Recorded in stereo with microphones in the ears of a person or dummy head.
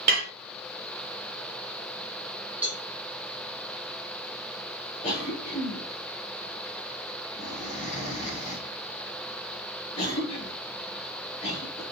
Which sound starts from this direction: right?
Dishes clattering, at 0.1 s.